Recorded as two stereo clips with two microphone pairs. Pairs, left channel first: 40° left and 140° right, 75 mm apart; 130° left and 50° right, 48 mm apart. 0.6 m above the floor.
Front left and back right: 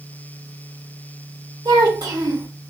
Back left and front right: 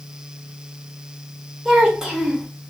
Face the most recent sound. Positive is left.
turn(degrees=-125)